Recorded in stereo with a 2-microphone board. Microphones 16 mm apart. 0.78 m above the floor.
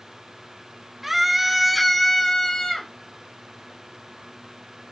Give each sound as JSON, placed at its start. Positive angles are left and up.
{"t": 1.0, "sound": "a scream", "side_deg": -10, "distance_m": 1.6}